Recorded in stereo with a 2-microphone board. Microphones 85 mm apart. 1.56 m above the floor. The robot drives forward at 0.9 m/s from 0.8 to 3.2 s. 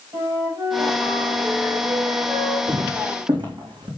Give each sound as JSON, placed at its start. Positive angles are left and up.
{"t": 0.1, "sound": "a flute", "side_deg": -40, "distance_m": 4.5}
{"t": 2.7, "sound": "footsteps", "side_deg": -60, "distance_m": 3.0}